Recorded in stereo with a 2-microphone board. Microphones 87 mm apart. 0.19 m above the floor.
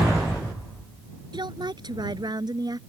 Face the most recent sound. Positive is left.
turn(degrees=-50)  # may be behind; listen again after turning